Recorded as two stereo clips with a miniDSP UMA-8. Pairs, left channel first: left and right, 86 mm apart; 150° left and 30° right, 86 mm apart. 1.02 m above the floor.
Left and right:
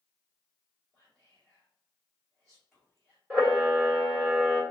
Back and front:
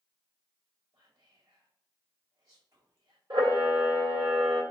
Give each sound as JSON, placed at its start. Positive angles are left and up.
{"t": 0.9, "sound": "whispering", "azimuth_deg": -5, "distance_m": 2.0}
{"t": 3.3, "sound": "a camera shutter", "azimuth_deg": -5, "distance_m": 1.5}